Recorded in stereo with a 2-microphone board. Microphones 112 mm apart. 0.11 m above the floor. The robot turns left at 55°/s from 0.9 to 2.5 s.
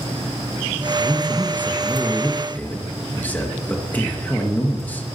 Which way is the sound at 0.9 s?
115° right.